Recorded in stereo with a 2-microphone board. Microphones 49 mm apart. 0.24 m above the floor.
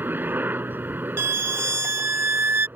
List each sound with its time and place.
0.0 s a helicopter: 40° right (ahead or behind)
1.2 s a violin: 55° right (ahead or behind)